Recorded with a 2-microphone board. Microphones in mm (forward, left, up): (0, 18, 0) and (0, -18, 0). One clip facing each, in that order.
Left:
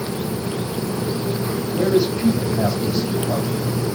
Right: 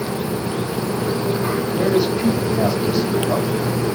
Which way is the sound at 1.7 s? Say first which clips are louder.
Left 1 dB; 10° right (ahead or behind).